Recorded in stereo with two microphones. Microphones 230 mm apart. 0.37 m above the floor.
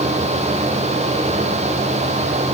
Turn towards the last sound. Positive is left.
No sound to turn to.